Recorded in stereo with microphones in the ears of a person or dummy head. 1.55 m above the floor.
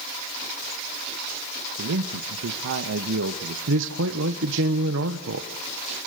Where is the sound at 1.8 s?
75° right (ahead or behind), 1.4 m.